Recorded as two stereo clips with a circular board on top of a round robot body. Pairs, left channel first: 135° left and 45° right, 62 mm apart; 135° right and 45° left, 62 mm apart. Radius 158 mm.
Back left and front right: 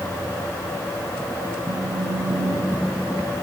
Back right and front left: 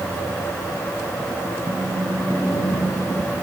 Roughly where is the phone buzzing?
Ahead right.